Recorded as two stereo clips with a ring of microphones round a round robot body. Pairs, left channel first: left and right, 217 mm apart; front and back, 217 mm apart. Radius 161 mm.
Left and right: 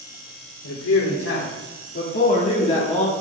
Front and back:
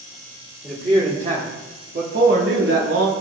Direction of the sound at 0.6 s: 110° left.